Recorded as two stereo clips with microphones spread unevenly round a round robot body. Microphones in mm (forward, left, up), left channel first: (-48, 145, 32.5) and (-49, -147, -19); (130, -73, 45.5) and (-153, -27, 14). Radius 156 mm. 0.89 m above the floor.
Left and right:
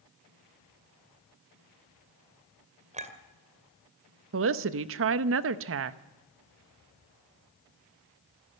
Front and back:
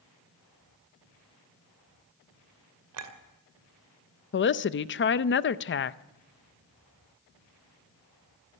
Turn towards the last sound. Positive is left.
turn(degrees=-60)